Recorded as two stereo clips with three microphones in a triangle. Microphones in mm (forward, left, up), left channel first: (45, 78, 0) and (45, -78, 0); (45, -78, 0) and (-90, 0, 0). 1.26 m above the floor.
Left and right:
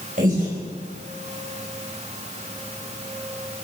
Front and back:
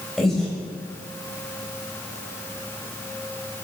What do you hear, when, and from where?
0.2 s breathing: 120° right, 5.5 m